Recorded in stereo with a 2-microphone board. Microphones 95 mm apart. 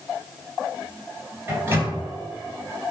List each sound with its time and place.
1.5 s a microwave: 25° right (ahead or behind), 1.8 m